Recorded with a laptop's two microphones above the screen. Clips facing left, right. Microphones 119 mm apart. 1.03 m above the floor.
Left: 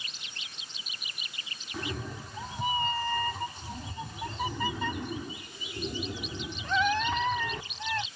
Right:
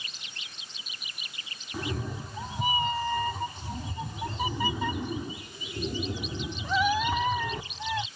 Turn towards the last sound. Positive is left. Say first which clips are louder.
# right 3 dB
turn(degrees=-10)  # may be behind; listen again after turning